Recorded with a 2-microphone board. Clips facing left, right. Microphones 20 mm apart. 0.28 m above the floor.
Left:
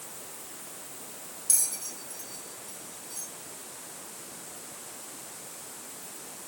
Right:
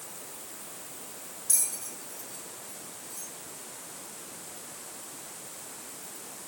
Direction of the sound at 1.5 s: 65° left (ahead or behind).